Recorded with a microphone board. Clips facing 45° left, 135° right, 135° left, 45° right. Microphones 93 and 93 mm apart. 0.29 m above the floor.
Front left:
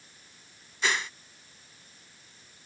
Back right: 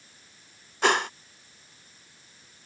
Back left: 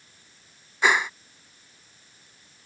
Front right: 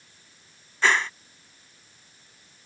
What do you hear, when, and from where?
0.8 s a whoosh: 150° right